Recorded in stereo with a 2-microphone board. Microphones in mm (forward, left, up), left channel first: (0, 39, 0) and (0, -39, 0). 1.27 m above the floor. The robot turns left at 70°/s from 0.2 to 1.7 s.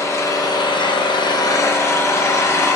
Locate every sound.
0.0 s an engine running: 145° left, 1.0 m; by 2.8 s 40° left, 1.0 m